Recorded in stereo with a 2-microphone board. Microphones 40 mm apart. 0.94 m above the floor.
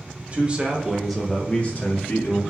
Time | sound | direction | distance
0.3 | a man speaking | 25° right (ahead or behind) | 1.2 m